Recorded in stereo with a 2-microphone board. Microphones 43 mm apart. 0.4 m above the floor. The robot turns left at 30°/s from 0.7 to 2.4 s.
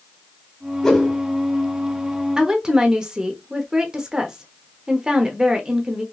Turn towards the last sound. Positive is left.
turn(degrees=-20)  # may be behind; listen again after turning